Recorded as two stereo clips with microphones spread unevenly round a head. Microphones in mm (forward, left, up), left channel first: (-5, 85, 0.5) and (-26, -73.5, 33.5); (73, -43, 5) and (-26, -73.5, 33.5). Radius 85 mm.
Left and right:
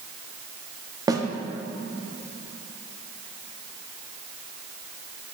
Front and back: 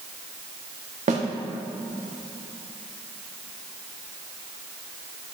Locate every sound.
1.1 s a snare drum: 165° right, 1.2 m